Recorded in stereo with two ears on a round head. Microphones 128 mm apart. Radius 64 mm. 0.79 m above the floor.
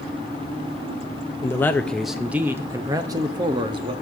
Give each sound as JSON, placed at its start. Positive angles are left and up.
{"t": 1.4, "sound": "a man speaking", "side_deg": 20, "distance_m": 0.7}